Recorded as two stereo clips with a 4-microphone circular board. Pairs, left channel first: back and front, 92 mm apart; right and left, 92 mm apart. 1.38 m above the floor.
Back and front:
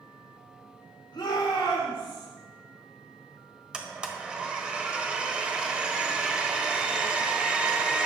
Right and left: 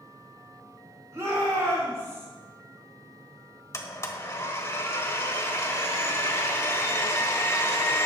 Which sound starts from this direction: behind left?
A shout, at 1.1 s.